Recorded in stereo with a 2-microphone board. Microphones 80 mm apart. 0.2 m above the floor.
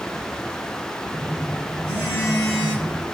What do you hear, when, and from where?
1.1 s a phone buzzing: 40° left (ahead or behind), 3.5 m